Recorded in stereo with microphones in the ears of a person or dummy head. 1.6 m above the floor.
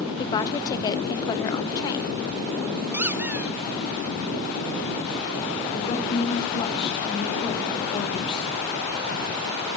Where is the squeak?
5° right (ahead or behind), 0.8 m.